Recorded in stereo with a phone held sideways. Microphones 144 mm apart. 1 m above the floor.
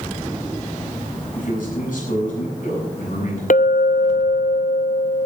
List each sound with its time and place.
1.4 s a man speaking: 70° left (ahead or behind), 8 m
3.5 s a clink: 65° left (ahead or behind), 0.6 m